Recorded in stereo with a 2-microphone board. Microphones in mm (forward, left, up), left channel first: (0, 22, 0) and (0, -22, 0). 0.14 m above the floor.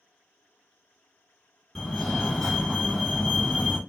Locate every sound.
1.8 s a fire alarm: 5° left (ahead or behind), 2 m